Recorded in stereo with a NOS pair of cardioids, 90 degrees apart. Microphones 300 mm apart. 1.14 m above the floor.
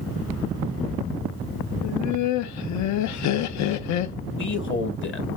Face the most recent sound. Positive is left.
turn(degrees=40)